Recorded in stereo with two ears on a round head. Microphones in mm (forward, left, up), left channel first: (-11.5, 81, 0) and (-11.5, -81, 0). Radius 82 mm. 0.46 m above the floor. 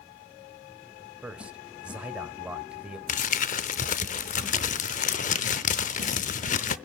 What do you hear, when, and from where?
1.2 s a man speaking: 5° right (ahead or behind), 1.7 m
3.1 s crumpling: 40° left (ahead or behind), 0.7 m